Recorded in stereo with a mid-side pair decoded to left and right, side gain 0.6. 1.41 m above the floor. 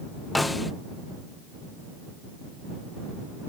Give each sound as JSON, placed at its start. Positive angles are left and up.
{"t": 0.3, "sound": "a snare drum", "azimuth_deg": 10}